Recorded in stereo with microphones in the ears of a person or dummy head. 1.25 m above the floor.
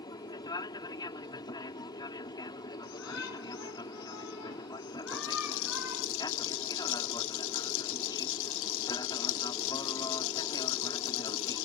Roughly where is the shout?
Left.